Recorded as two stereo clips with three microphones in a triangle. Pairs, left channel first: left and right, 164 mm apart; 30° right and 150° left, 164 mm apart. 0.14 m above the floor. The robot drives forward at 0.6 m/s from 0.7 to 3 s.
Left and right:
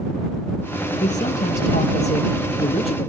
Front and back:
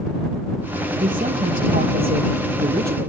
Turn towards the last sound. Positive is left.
turn(degrees=140)